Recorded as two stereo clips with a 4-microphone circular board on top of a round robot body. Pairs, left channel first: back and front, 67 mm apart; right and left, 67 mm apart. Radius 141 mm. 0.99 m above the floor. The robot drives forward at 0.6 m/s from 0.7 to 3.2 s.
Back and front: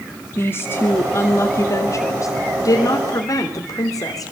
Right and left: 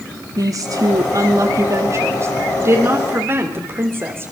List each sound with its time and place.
0.4 s a woman speaking: 120° left, 2 m; by 4.3 s 145° left, 3 m